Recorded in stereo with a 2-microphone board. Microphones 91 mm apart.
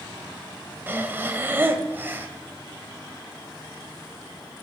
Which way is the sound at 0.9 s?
25° right (ahead or behind).